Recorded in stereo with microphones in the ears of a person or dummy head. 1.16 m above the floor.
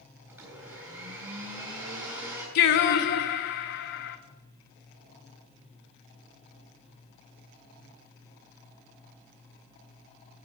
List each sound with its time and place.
0.3 s a blender: 15° right (ahead or behind), 3.5 m
2.5 s singing: 50° left (ahead or behind), 0.8 m